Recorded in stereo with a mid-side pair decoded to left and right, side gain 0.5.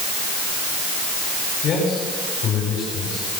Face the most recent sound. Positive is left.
turn(degrees=60)